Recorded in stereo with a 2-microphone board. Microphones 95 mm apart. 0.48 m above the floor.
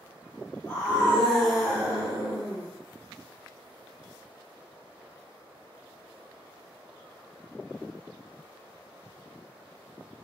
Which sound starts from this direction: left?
A scream, at 0.7 s.